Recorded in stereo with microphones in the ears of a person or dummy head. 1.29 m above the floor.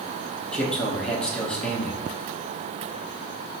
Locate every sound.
0.5 s a man speaking: 5° left (ahead or behind), 0.7 m